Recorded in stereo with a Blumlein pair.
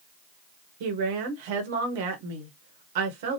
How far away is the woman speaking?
About 1.1 m.